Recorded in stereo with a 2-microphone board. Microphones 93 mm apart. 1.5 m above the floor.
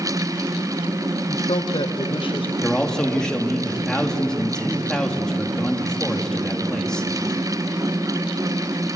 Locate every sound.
1.3 s a man speaking: 65° left (ahead or behind), 1.1 m; by 2.5 s 75° left (ahead or behind), 2.5 m
2.6 s a man speaking: 10° left (ahead or behind), 2.5 m